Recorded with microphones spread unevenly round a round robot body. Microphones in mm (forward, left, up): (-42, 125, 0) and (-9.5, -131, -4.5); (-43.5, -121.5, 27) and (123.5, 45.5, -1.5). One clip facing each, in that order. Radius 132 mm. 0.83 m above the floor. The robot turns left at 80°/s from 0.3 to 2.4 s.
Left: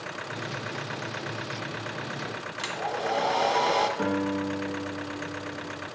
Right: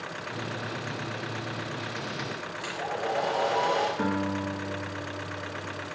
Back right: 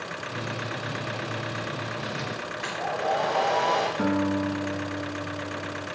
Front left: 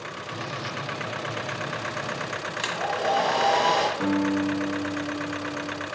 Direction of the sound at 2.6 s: 65° left.